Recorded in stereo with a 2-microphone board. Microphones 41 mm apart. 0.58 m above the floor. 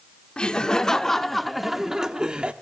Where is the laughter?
20° left (ahead or behind), 1.4 m; by 2.5 s 25° right (ahead or behind), 1.2 m.